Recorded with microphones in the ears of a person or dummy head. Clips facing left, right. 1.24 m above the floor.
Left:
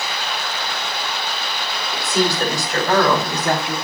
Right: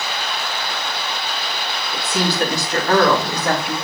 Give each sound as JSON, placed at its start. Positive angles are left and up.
{"t": 1.9, "sound": "a woman speaking", "side_deg": 0, "distance_m": 2.5}